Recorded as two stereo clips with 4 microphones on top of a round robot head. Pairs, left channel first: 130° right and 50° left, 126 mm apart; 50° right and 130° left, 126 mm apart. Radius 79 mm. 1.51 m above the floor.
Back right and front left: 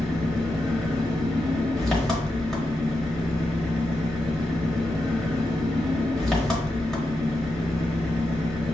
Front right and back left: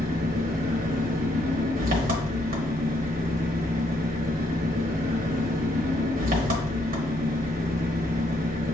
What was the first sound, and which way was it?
An engine running, 145° left.